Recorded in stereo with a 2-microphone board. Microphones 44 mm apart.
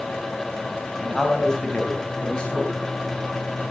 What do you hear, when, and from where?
1.0 s a man speaking: 10° left (ahead or behind), 2.5 m; by 2.8 s 25° left (ahead or behind), 4 m